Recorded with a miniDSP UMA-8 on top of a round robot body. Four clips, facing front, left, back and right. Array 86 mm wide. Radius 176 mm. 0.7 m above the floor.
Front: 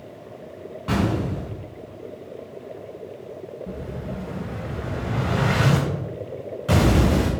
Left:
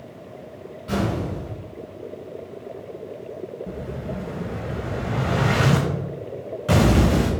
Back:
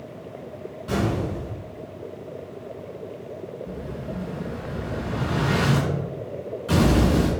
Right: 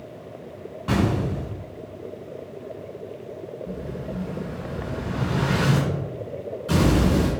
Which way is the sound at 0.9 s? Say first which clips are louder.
Right 2 dB, front 2 dB; 40° right.